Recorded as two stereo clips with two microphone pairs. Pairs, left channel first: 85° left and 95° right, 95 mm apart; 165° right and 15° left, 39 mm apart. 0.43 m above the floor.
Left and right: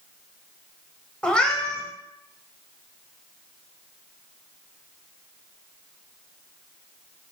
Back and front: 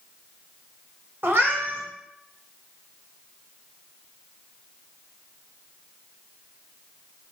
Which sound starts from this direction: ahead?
A cat meowing, at 1.2 s.